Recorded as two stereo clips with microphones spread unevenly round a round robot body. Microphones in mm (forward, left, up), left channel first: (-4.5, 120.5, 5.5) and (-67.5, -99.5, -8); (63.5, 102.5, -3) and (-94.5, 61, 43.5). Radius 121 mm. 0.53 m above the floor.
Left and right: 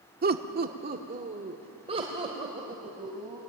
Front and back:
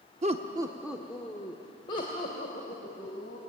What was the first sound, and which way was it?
Laughter, 115° right.